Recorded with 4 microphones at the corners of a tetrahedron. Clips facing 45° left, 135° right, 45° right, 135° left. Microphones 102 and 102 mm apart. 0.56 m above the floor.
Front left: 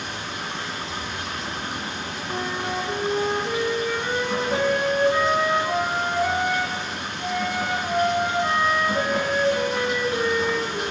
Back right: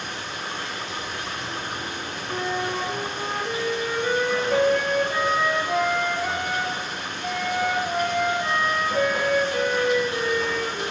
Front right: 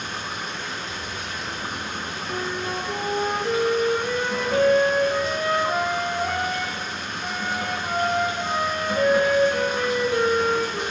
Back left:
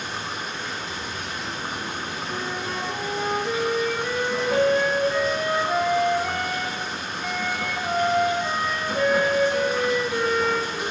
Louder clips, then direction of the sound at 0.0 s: Front left 1 dB, even; 50° left.